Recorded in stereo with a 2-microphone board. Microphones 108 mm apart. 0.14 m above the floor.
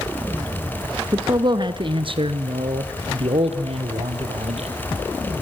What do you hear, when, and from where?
1.1 s a man speaking: 35° right (ahead or behind), 1.3 m; by 4.8 s 75° right (ahead or behind), 3.5 m